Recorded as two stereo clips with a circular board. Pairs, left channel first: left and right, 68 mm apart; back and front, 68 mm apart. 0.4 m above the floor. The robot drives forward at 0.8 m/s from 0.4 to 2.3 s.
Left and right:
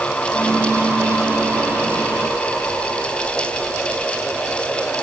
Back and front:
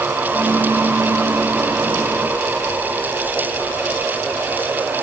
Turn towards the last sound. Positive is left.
No sound to turn to.